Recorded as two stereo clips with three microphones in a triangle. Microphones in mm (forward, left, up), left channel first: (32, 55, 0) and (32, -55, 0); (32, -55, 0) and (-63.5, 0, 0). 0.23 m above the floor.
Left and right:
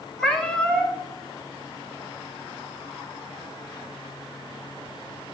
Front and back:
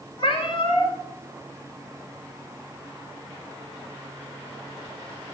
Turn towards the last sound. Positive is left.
turn(degrees=5)